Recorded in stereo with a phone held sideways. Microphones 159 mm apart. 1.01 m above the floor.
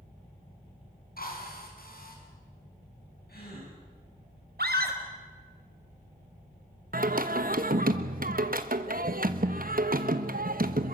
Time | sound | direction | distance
1.2 | a drill | 70° left (ahead or behind) | 6 m
3.3 | a gasp | 80° left | 9.5 m
4.6 | a scream | 80° right | 4 m
6.9 | singing | 65° right (ahead or behind) | 1.3 m